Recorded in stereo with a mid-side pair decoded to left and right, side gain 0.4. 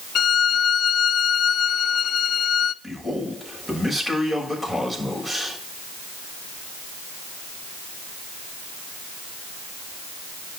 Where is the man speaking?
10° right, 7 m.